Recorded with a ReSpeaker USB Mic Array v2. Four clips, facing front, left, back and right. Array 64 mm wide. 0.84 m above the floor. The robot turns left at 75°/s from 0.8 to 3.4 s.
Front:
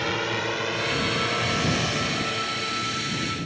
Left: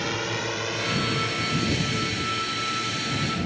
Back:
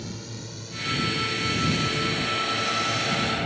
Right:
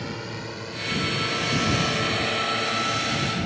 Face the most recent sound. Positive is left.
turn(degrees=-165)